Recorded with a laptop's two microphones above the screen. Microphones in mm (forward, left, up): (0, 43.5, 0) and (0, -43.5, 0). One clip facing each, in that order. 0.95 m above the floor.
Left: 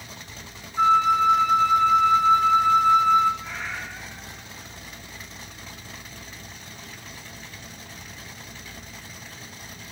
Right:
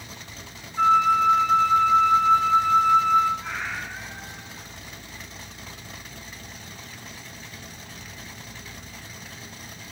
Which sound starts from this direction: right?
A cat meowing, at 3.4 s.